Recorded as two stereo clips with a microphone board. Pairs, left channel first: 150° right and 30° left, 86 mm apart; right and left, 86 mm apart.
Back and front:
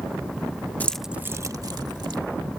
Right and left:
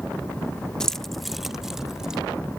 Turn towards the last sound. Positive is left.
turn(degrees=5)